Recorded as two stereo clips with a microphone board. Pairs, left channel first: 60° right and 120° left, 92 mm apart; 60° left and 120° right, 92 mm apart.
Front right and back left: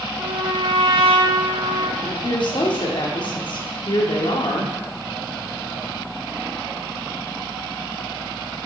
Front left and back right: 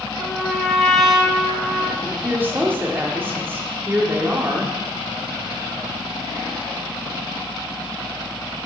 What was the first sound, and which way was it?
A trumpet, 150° left.